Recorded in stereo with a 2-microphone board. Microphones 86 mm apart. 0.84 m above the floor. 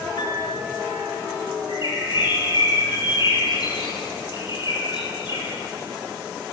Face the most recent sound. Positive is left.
turn(degrees=60)  # may be behind; listen again after turning